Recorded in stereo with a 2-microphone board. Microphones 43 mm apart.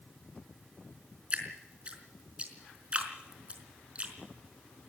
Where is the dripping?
30° right (ahead or behind), 4.5 m.